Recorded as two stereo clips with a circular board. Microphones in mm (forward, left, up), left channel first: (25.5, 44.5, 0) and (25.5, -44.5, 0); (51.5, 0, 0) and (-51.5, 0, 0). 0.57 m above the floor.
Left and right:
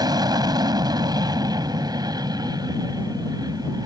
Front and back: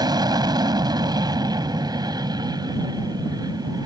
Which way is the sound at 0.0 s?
130° right.